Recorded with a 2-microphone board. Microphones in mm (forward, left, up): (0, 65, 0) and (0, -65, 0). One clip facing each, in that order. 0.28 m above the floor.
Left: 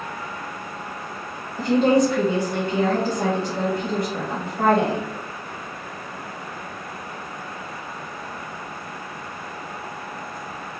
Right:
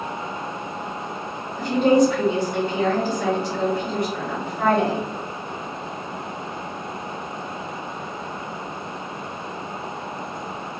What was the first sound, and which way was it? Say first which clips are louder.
A woman speaking: right 1 dB; 35° left (ahead or behind).